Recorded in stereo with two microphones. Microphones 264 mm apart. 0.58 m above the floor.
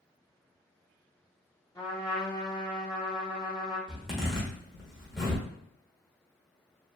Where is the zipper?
Centre (ahead or behind), 1.1 m.